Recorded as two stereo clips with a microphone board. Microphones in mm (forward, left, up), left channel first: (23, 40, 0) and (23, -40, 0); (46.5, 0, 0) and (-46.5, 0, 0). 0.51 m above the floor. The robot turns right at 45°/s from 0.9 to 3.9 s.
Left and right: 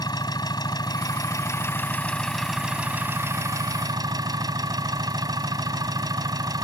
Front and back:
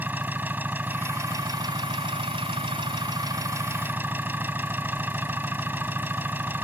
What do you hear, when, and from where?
0.0 s an engine running: 110° left; by 6.6 s 115° right